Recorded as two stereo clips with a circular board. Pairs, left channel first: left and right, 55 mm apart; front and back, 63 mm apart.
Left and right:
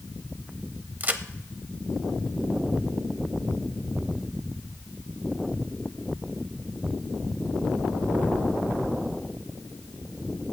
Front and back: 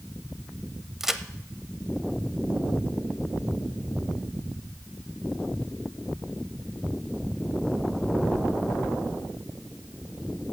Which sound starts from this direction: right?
A crack, at 1.0 s.